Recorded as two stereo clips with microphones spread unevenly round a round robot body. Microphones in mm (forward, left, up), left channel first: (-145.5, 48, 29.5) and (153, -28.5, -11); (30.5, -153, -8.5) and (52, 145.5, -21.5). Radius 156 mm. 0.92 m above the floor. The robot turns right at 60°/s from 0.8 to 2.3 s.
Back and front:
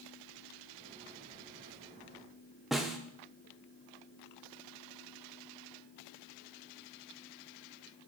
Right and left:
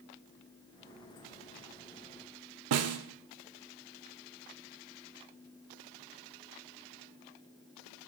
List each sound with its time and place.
2.7 s a snare drum: 80° left, 0.5 m